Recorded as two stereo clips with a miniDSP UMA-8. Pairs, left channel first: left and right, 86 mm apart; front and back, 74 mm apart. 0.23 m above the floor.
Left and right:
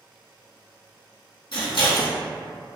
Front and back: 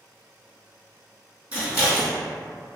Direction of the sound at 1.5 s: 115° left.